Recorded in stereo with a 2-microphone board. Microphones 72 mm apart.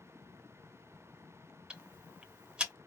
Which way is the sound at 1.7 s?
15° right (ahead or behind).